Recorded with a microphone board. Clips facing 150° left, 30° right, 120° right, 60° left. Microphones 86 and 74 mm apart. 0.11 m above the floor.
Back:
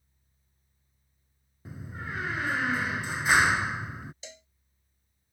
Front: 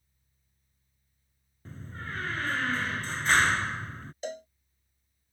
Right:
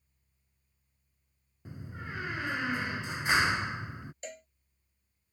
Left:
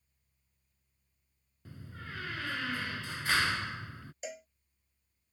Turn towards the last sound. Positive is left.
turn(degrees=-25)